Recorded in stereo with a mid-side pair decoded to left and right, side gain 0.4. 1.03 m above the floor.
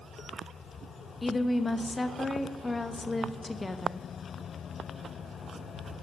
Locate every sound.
1.2 s a woman speaking: 20° left, 0.9 m